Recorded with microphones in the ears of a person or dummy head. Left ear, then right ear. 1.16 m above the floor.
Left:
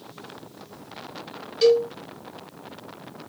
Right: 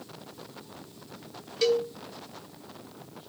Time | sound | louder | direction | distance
1.6 | a cowbell | left 7 dB | 15° right (ahead or behind) | 1.6 m